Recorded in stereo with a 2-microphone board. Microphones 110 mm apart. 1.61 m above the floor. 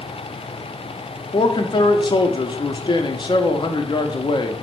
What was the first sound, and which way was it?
A man speaking, 45° left (ahead or behind).